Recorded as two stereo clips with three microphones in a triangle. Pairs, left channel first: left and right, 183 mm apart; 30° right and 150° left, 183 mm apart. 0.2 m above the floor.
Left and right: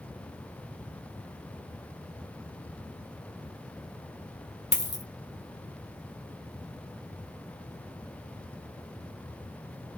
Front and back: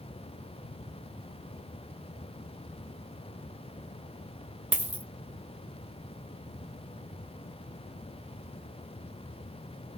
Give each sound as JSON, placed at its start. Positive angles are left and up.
{"t": 4.7, "sound": "a dropped coin", "azimuth_deg": 70, "distance_m": 1.0}